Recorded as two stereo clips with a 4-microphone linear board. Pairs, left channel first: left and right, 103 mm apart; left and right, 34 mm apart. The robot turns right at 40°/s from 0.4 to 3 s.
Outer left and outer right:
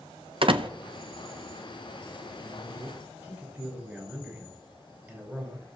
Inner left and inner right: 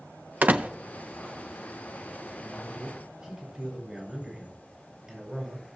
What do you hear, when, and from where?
0.4 s a door slam: 60° right (ahead or behind), 0.8 m; by 0.7 s 55° right (ahead or behind), 0.8 m
2.4 s a man speaking: centre (ahead or behind), 5 m; by 5.7 s 25° right (ahead or behind), 5 m